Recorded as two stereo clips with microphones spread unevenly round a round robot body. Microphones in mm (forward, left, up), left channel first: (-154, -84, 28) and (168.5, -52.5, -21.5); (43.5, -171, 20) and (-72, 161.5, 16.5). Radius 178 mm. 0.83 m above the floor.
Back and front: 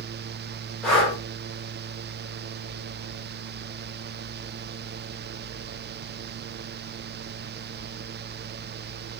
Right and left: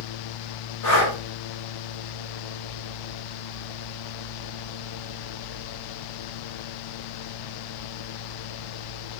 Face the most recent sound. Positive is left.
turn(degrees=-80)